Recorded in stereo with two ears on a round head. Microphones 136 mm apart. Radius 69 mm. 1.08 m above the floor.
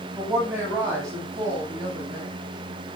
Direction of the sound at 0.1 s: 15° right (ahead or behind).